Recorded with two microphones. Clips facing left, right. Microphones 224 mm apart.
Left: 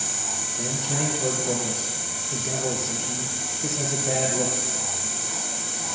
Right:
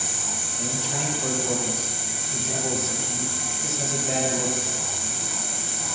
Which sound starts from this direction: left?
A man speaking, at 0.6 s.